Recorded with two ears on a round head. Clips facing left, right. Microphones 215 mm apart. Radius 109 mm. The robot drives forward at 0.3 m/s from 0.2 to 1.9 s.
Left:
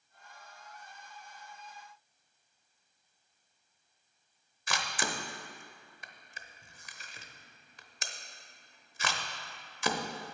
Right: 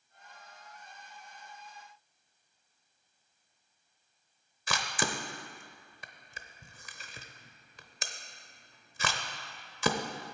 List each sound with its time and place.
4.7 s a camera shutter: 65° right (ahead or behind), 0.8 m